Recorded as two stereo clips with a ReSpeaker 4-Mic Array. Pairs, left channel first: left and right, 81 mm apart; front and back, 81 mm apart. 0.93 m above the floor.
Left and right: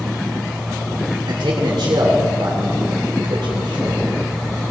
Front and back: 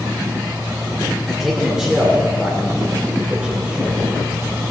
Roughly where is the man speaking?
Right.